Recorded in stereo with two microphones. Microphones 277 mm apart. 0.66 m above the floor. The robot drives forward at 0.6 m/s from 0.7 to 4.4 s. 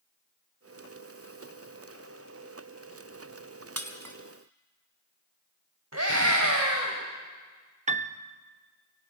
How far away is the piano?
About 0.7 m.